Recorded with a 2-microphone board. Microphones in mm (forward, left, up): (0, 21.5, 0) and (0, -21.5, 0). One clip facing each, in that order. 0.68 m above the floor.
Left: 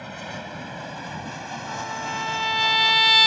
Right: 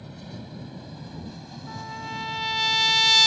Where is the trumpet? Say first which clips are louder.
Left 4 dB; 20° left (ahead or behind).